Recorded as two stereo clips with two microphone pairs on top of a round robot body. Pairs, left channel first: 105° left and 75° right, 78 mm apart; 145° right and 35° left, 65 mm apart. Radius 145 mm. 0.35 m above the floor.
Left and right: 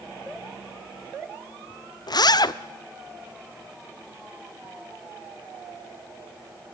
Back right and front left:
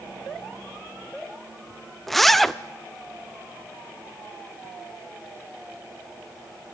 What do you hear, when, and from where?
2.1 s a zipper: 130° left, 1.0 m